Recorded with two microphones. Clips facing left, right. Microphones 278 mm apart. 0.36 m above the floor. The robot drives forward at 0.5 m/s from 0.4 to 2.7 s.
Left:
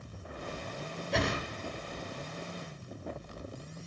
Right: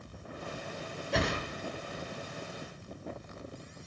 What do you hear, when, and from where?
1.1 s a whoosh: centre (ahead or behind), 1.5 m